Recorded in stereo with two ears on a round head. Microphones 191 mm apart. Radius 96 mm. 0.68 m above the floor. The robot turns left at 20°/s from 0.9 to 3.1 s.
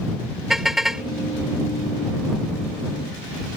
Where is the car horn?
Centre (ahead or behind); by 1.1 s 5° right (ahead or behind).